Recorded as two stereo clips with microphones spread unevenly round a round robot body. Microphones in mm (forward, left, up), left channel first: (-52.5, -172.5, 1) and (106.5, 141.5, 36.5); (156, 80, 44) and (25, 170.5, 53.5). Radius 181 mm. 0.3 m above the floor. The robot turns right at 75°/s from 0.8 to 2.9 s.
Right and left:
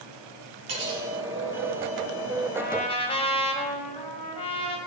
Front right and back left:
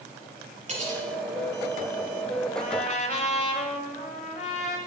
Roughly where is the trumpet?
Right.